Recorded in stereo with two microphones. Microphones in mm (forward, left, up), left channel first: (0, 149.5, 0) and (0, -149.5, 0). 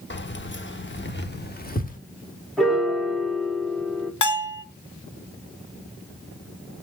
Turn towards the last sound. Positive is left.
turn(degrees=80)